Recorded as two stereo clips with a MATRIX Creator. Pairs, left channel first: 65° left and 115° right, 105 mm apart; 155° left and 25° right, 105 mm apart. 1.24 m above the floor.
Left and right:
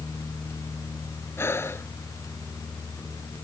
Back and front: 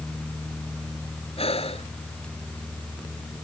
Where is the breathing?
135° left.